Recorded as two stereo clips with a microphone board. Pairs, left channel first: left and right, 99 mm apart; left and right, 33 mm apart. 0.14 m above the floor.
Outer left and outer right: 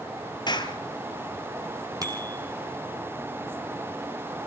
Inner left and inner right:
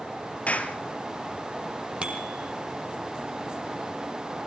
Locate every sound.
0.5 s a clap: 50° left (ahead or behind), 3 m
2.0 s a bicycle bell: 35° right (ahead or behind), 4 m